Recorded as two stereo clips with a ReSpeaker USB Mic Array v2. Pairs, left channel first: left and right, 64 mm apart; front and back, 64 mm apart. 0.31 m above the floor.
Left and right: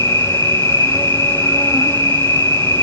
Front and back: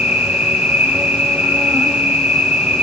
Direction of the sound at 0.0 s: 115° left.